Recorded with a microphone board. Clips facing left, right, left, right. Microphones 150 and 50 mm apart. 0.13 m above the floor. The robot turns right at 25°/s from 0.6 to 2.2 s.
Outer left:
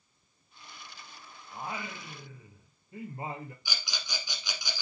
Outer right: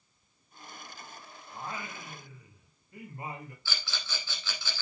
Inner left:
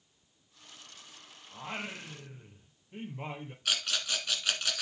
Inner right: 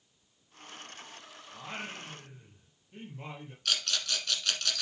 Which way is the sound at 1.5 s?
10° left (ahead or behind).